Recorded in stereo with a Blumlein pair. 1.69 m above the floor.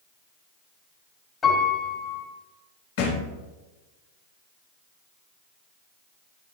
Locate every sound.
1.4 s a piano: 20° left, 3.5 m
3.0 s a thud: 50° left, 4.5 m